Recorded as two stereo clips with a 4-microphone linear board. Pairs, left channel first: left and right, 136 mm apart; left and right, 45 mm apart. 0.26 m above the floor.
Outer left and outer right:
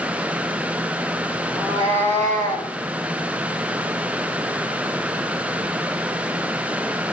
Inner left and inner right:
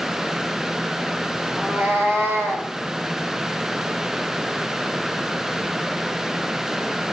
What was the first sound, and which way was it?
A cat meowing, 25° right (ahead or behind).